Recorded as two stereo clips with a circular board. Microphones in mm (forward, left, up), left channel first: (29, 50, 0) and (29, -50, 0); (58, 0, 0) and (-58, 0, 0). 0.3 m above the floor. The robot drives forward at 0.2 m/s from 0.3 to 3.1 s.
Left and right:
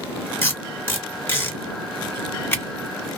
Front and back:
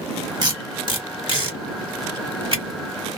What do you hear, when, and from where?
0.4 s tape being pulled: 145° left, 1.9 m; by 2.6 s 155° left, 2 m